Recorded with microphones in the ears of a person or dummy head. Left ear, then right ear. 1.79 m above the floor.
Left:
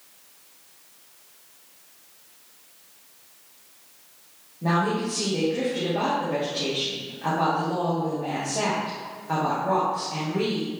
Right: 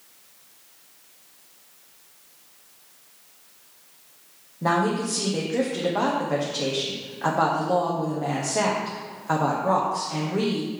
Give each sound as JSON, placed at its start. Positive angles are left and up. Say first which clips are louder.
{"t": 4.6, "sound": "a woman speaking", "louder": "right 2 dB", "side_deg": -75, "distance_m": 1.1}